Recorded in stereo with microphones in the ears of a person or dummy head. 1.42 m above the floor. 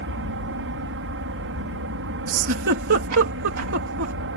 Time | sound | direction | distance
0.0 | an aircraft | 65° right (ahead or behind) | ?
2.3 | a giggle | 65° right (ahead or behind) | ?